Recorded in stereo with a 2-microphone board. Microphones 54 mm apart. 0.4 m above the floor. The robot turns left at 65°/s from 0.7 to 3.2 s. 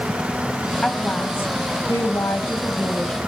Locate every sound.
0.8 s a woman speaking: 170° left, 2.5 m; by 3.2 s 15° left, 2.5 m